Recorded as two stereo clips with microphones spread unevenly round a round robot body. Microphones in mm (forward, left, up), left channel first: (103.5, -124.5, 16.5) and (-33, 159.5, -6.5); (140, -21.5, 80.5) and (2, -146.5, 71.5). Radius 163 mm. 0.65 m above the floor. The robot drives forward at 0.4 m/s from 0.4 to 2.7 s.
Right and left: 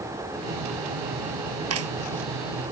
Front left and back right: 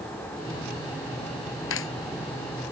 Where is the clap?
70° left.